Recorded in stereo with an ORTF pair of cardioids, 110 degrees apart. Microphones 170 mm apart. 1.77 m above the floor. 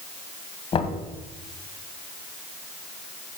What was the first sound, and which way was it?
Knocking, 35° left.